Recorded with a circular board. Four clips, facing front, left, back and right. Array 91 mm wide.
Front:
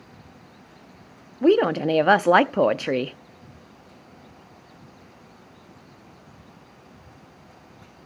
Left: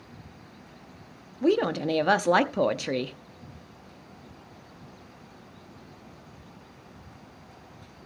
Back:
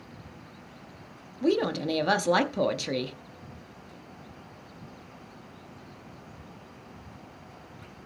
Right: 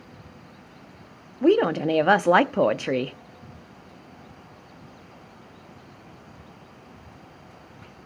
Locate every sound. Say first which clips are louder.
1.4 s a woman speaking: right 4 dB, front 8 dB; 30° right, 0.6 m